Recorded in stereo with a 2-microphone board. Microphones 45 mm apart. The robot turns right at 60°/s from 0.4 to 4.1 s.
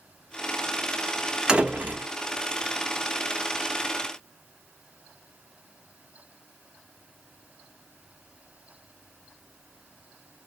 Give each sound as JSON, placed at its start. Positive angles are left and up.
{"t": 1.5, "sound": "a door slam", "azimuth_deg": -160, "distance_m": 0.8}